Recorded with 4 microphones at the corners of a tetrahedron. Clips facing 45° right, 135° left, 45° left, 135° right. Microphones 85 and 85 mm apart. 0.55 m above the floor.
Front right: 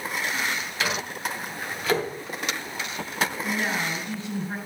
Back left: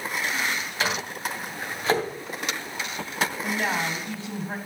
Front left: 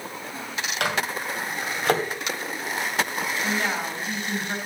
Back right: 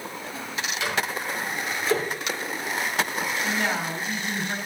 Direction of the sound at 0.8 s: 75° left.